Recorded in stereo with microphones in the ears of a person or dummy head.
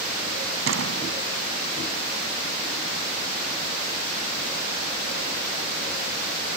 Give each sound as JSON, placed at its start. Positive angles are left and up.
{"t": 0.7, "sound": "a door slam", "side_deg": -85}